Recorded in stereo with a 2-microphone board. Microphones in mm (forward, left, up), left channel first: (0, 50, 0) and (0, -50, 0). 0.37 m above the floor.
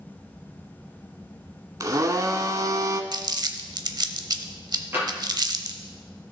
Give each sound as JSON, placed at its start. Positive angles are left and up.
{"t": 1.8, "sound": "a blender", "side_deg": -40, "distance_m": 0.8}
{"t": 3.1, "sound": "crumpling", "side_deg": -50, "distance_m": 0.6}
{"t": 4.9, "sound": "tapping", "side_deg": -25, "distance_m": 3.5}